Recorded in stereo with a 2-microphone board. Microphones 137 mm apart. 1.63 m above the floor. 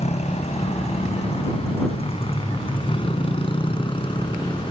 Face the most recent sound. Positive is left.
turn(degrees=35)  # may be behind; listen again after turning